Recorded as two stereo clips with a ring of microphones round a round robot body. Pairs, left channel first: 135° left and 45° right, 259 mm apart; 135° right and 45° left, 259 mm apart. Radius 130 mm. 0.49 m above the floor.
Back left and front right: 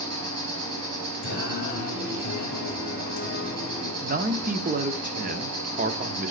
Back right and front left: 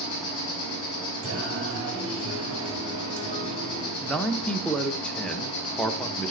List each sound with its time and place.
0.0 s an insect: 70° right, 5 m
1.2 s singing: 85° left, 2.5 m
4.0 s a man speaking: 55° right, 0.7 m